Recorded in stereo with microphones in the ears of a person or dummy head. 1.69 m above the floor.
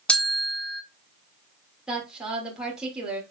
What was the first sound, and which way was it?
A bell, 5° left (ahead or behind).